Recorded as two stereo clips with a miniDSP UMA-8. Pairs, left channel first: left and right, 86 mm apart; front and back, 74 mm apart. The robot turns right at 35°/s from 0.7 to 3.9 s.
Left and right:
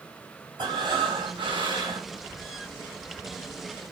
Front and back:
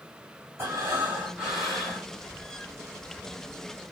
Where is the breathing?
125° right, 2.5 m; by 2.1 s 75° right, 2.5 m.